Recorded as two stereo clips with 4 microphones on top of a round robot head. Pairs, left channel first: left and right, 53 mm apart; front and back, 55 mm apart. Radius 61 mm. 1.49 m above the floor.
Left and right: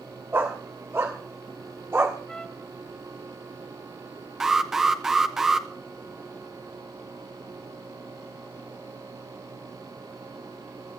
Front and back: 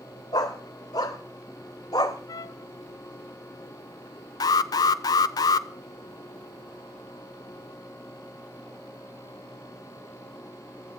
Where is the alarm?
5° right, 1.0 m.